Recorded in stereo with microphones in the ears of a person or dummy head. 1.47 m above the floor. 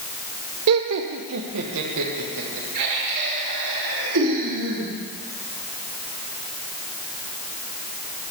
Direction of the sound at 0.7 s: 80° right.